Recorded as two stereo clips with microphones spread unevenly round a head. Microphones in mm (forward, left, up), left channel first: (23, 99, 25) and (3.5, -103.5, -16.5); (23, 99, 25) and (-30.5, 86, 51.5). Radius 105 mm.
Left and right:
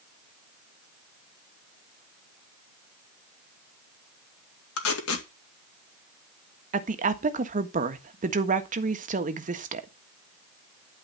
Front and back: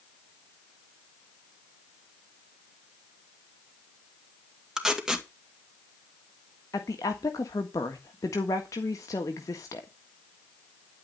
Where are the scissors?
I don't hear scissors.